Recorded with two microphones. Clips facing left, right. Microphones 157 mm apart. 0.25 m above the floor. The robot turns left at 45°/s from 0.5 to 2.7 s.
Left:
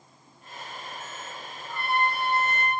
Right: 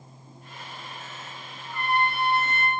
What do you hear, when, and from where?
1.6 s a trumpet: 50° right, 2.5 m; by 2.7 s 95° right, 2.5 m